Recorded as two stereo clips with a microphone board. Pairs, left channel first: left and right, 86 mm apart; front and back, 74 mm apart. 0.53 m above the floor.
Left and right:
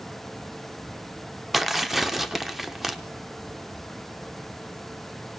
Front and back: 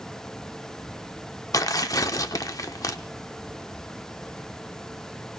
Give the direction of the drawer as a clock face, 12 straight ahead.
I don't hear a drawer.